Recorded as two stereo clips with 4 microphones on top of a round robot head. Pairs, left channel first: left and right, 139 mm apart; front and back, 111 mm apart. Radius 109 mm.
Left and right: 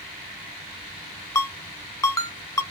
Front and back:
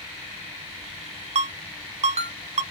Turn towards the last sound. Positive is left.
turn(degrees=155)